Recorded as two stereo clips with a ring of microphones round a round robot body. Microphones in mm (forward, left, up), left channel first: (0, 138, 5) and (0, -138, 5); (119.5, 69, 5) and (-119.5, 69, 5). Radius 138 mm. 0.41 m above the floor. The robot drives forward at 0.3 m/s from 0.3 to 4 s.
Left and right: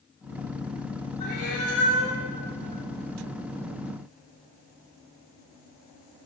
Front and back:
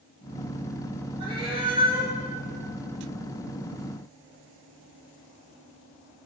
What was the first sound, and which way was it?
A cat meowing, 110° left.